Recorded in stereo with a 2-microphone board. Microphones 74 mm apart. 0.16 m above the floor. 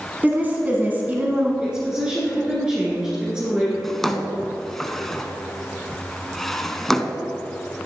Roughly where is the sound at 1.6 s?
Centre.